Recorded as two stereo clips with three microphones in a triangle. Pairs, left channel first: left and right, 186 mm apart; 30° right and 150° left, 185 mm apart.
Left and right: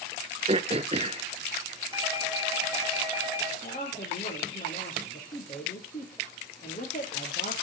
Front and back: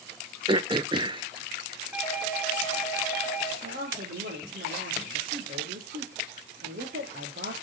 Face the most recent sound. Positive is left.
turn(degrees=130)